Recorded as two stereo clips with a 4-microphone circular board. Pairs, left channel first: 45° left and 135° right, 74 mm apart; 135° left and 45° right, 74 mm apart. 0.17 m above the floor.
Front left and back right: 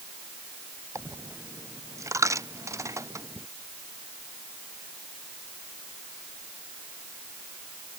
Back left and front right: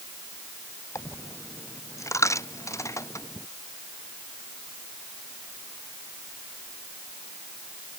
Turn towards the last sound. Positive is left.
turn(degrees=180)